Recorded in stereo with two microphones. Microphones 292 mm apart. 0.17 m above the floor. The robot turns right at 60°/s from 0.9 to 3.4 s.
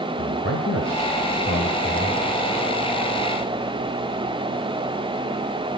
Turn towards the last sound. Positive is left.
turn(degrees=-95)